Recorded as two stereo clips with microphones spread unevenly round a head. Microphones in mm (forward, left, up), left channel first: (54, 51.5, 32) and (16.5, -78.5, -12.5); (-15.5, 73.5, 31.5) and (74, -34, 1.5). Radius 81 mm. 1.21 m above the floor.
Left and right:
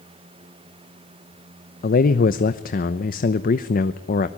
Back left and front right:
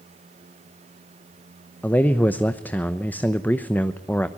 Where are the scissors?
No scissors in this recording.